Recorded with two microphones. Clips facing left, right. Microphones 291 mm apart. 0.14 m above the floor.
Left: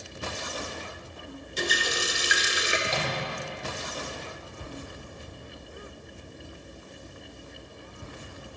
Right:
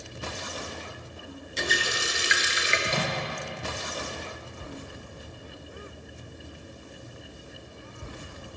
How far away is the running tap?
About 1.3 m.